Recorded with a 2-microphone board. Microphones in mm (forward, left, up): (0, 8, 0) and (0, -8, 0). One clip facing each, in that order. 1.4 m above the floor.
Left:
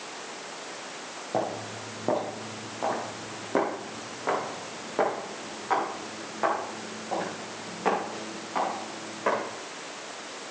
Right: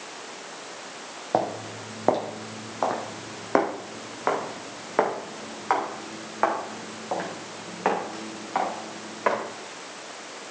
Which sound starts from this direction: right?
Footsteps, at 1.3 s.